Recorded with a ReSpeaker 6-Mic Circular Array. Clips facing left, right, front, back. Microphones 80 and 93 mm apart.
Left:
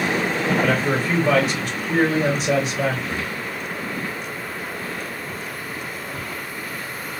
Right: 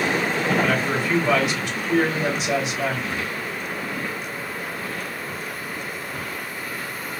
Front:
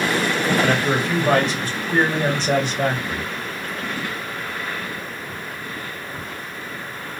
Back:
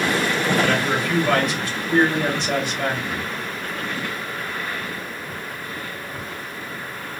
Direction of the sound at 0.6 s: 55° left.